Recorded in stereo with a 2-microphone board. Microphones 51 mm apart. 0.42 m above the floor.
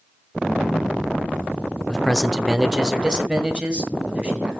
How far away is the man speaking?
About 0.8 m.